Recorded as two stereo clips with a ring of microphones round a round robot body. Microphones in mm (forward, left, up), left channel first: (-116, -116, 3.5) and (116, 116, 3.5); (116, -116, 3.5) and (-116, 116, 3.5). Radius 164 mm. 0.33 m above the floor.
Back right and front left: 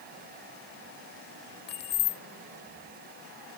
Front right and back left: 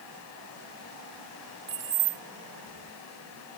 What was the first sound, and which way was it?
Keys jangling, 165° right.